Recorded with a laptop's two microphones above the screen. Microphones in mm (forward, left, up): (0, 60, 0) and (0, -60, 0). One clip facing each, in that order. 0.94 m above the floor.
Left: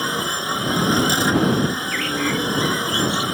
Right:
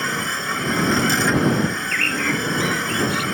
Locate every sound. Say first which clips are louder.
0.0 s a machine running: left 1 dB; 15° left (ahead or behind)
1.7 s a bird: left 1 dB; 5° left (ahead or behind)